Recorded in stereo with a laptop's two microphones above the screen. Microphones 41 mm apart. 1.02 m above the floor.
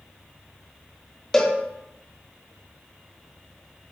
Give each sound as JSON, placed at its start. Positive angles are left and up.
{"t": 1.3, "sound": "a cowbell", "side_deg": 10, "distance_m": 0.8}